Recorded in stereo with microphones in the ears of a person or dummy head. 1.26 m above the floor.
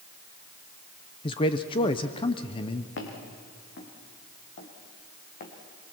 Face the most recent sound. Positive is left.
turn(degrees=35)  # may be behind; listen again after turning